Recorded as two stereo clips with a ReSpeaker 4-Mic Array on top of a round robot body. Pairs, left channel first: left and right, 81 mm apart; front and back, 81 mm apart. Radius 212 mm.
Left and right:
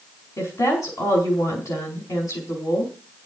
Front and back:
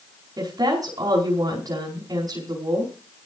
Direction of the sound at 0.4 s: 140° left.